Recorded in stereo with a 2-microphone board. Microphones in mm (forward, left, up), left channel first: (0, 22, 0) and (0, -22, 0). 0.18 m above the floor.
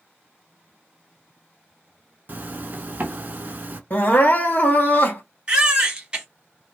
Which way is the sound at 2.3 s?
45° right (ahead or behind).